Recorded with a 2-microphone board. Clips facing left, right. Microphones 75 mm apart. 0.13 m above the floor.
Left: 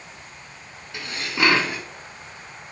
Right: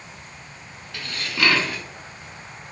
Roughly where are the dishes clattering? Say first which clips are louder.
Left 1 dB; centre.